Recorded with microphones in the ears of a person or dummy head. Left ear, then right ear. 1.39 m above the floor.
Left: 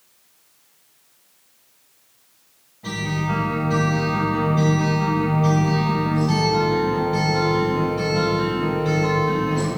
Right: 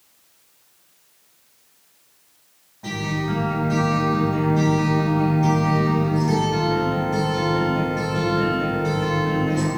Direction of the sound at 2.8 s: 45° right (ahead or behind).